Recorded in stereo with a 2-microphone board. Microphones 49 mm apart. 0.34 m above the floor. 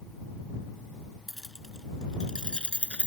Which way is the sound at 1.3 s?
5° left (ahead or behind).